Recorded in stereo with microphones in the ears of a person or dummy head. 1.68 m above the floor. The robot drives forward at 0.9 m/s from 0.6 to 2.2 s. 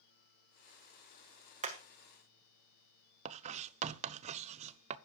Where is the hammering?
45° right (ahead or behind), 1.6 m; by 1.8 s 40° right (ahead or behind), 1.7 m.